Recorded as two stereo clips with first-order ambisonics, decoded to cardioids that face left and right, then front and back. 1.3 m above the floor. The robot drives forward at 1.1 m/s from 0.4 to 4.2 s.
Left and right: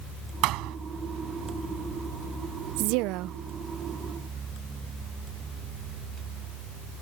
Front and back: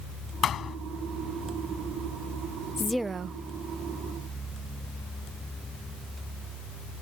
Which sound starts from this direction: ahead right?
A thud, at 0.4 s.